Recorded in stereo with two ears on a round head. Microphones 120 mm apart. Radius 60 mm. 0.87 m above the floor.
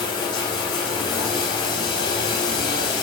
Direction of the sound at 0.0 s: 35° left (ahead or behind).